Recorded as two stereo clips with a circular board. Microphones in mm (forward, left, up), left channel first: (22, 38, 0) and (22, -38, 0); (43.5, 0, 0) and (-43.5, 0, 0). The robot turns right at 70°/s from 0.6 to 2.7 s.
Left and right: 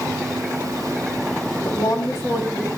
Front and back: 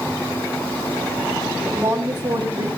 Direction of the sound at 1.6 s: 105° left.